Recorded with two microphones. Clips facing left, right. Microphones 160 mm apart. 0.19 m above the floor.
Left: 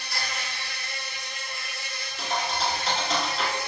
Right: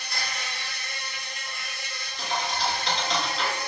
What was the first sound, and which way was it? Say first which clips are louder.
An insect: left 1 dB; 55° right (ahead or behind).